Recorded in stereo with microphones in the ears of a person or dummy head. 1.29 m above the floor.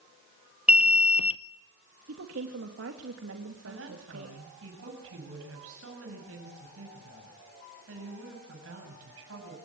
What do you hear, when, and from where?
0.7 s an alarm: 10° right (ahead or behind), 0.8 m
2.1 s a woman speaking: 75° right (ahead or behind), 2.5 m
3.6 s a woman speaking: 85° right, 7.5 m